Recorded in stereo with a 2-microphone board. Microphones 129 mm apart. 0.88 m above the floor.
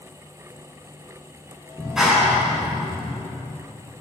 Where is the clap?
5° right (ahead or behind), 7 m.